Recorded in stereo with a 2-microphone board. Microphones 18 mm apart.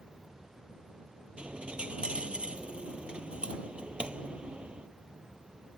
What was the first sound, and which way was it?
A dropped coin, 85° right.